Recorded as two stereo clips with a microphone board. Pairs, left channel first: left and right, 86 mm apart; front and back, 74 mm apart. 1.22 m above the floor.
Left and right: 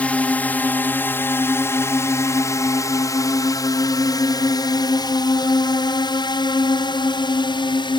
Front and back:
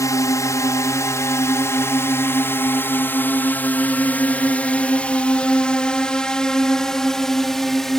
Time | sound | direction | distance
0.0 | a drone | 20° left | ?